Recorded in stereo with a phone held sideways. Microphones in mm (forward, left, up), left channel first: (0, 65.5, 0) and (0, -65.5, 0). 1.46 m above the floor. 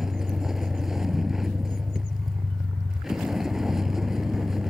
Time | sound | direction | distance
0.0 | a vehicle | 5° right (ahead or behind) | ?